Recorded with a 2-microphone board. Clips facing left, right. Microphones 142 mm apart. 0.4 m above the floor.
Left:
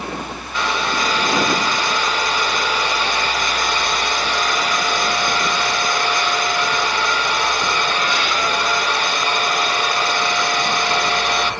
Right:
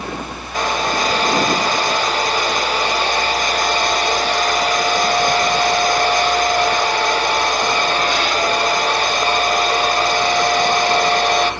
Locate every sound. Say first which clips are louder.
0.5 s a hair dryer: right 3 dB; 40° right (ahead or behind), 0.7 m